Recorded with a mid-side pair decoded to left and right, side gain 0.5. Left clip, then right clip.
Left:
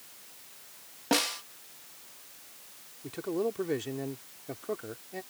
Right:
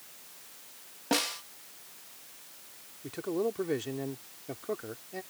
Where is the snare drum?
15° left.